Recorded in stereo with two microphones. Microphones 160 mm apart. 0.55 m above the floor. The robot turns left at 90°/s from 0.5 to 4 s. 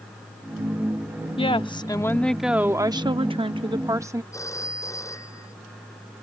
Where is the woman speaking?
90° left; by 4.2 s 145° right.